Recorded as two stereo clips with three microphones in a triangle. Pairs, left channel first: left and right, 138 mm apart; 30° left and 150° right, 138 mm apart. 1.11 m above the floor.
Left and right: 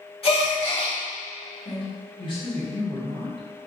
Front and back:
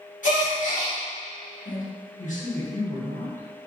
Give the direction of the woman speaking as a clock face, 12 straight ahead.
11 o'clock.